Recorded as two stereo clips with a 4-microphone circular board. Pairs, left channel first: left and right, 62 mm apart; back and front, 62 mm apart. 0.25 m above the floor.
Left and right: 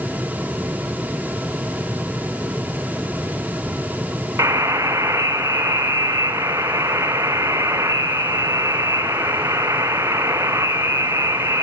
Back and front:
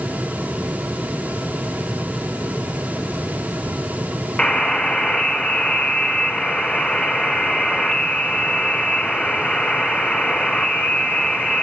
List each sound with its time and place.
4.4 s a buzzer: 110° right, 1.2 m